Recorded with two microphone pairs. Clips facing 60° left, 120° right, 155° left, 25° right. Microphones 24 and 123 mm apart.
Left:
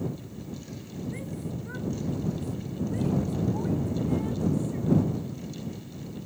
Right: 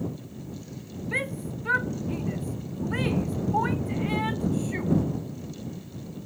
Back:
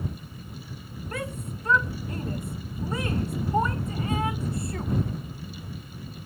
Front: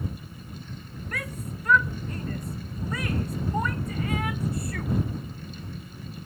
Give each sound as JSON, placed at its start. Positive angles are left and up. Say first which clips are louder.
{"t": 1.1, "sound": "a shout", "louder": "right 11 dB, back 2 dB", "azimuth_deg": -145}